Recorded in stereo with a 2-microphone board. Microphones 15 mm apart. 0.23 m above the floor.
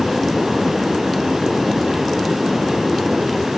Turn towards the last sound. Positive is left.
No sound to turn to.